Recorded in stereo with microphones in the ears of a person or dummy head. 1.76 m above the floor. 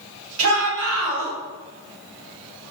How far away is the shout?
About 1.1 m.